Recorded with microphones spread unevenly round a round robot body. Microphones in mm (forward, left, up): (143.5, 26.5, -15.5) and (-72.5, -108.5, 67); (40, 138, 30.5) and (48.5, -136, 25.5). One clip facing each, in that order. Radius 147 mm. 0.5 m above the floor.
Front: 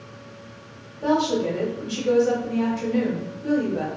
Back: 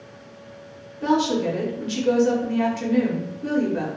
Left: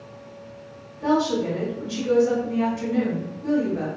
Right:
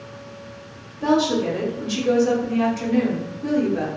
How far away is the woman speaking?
About 1.1 m.